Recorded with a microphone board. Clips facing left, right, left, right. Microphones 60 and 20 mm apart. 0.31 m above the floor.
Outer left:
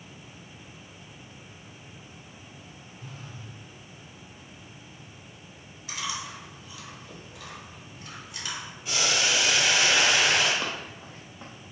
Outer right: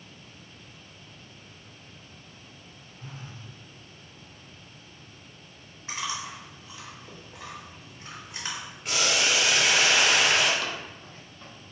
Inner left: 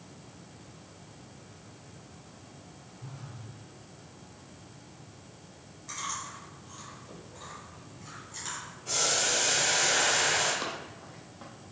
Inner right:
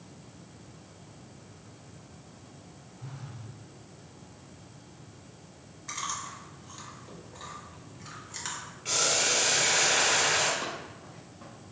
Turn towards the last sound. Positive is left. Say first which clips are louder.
# outer left 1 dB, even
turn(degrees=25)  # may be behind; listen again after turning